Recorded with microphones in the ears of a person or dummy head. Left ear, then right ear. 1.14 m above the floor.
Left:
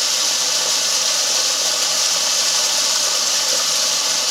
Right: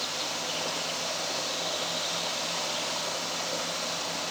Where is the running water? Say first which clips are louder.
Left 13 dB; 70° left (ahead or behind), 1.5 m.